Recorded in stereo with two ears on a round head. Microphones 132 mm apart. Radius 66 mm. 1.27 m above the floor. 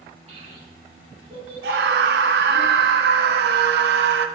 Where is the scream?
80° right, 0.6 m.